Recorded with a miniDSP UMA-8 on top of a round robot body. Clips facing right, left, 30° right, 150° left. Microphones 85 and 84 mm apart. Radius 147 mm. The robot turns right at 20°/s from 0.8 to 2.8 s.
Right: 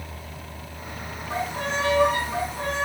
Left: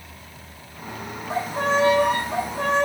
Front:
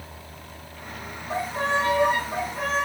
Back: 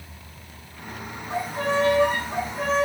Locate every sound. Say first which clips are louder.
1.3 s a violin: left 5 dB, even; 30° left, 3 m; by 2.9 s 60° left, 3 m